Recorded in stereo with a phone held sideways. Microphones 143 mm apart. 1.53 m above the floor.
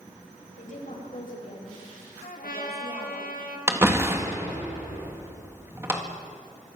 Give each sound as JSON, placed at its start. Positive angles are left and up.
{"t": 0.6, "sound": "a woman speaking", "side_deg": 65, "distance_m": 7.5}
{"t": 2.2, "sound": "a trumpet", "side_deg": 90, "distance_m": 3.0}
{"t": 3.7, "sound": "a door slam", "side_deg": -20, "distance_m": 2.0}